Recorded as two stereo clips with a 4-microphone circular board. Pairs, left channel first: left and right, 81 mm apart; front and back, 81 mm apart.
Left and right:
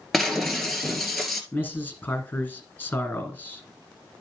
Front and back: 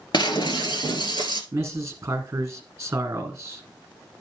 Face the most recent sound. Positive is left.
turn(degrees=130)